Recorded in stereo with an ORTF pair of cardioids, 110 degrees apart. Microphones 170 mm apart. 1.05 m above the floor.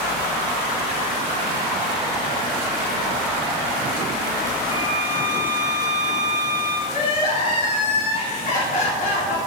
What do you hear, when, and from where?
4.7 s a violin: 20° right, 3 m
6.9 s crying: 55° left, 3 m